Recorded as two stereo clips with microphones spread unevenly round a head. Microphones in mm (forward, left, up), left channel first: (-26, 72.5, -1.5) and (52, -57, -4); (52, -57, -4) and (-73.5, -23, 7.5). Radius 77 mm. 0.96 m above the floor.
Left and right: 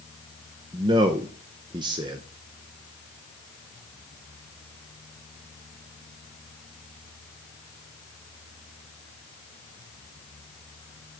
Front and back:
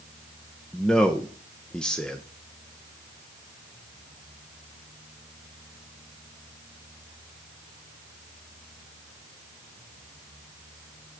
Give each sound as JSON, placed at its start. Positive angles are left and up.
{"t": 0.7, "sound": "a man speaking", "azimuth_deg": -85, "distance_m": 0.6}